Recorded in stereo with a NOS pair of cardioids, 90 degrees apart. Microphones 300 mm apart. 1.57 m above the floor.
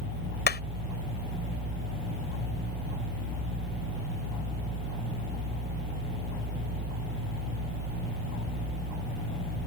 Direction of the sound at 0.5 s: 35° left.